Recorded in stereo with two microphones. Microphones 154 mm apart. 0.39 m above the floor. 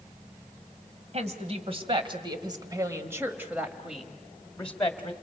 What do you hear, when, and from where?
1.1 s a woman speaking: 50° right (ahead or behind), 2 m; by 5.1 s 15° left (ahead or behind), 2 m